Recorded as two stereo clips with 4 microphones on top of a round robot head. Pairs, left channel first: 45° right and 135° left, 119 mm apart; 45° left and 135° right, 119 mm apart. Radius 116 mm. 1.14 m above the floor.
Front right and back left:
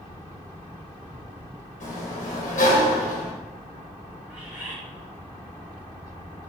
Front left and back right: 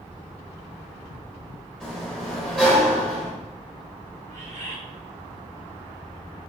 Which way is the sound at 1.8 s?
40° right.